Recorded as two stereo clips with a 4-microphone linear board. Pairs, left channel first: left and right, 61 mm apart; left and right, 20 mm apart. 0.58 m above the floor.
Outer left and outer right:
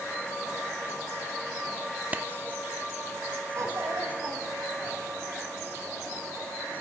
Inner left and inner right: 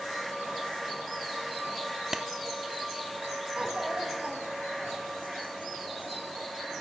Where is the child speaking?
60° right (ahead or behind), 2.5 m.